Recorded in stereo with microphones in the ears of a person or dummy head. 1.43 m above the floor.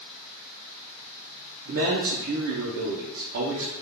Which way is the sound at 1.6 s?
60° right (ahead or behind).